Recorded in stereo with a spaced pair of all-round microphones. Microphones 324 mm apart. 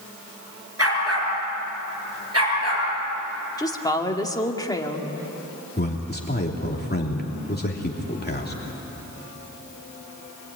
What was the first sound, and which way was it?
A dog barking, 45° right (ahead or behind).